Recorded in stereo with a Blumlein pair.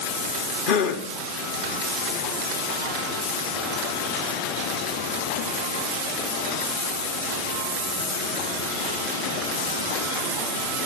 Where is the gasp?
45° left, 1.0 m.